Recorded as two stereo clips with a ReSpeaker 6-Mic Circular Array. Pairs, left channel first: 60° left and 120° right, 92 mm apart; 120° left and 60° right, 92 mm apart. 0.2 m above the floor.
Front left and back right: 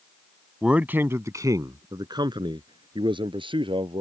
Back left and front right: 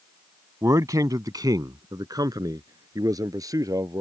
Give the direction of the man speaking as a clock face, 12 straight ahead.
1 o'clock.